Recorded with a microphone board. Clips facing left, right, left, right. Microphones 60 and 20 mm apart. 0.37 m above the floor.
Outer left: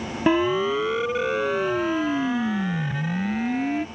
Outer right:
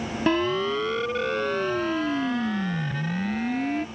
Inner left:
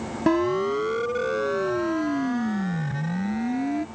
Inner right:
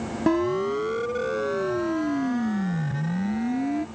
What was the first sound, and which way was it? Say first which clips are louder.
A siren: outer left 3 dB, inner left 1 dB; 10° left (ahead or behind).